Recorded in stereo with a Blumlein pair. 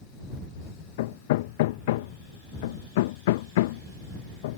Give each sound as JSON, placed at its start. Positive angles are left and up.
{"t": 1.0, "sound": "hammering", "azimuth_deg": 55}